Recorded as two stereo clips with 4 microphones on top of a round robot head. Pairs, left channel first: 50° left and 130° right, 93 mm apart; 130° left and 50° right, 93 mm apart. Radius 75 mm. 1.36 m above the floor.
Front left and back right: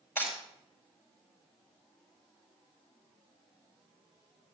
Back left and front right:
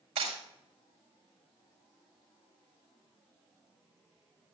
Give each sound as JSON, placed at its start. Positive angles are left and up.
{"t": 0.2, "sound": "breaking glass", "azimuth_deg": -20, "distance_m": 6.0}